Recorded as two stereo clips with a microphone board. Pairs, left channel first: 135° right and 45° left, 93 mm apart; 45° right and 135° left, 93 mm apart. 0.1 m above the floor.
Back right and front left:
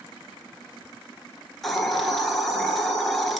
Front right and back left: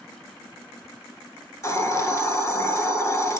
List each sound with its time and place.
1.6 s a hiss: 50° right, 0.6 m